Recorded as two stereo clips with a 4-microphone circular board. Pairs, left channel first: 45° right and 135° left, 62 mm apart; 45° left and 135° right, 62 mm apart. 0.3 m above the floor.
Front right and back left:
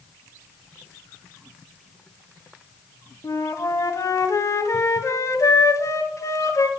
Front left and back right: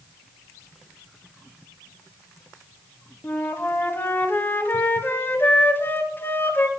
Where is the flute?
15° right, 0.7 m.